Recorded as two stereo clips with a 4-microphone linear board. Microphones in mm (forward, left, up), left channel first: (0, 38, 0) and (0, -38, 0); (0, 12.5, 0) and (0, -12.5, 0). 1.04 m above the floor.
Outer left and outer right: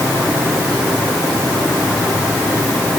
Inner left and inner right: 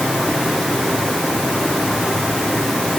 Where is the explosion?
No explosion in this recording.